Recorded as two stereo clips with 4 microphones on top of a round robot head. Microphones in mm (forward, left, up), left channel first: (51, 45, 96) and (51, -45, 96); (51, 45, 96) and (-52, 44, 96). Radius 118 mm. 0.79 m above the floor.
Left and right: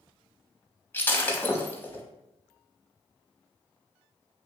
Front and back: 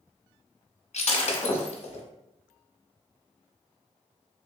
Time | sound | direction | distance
0.9 | breaking glass | 20° left | 1.0 m